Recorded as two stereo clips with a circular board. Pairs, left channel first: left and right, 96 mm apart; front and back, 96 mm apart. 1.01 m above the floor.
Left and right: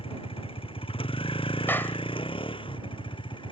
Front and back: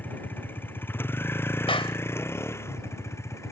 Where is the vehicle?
70° left; by 3.5 s 60° left.